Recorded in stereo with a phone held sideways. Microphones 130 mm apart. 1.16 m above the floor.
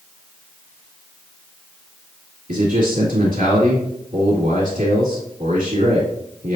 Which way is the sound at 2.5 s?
65° right (ahead or behind).